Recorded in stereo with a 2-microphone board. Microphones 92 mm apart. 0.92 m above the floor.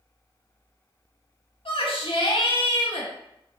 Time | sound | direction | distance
1.6 | a shout | 80° left | 1.1 m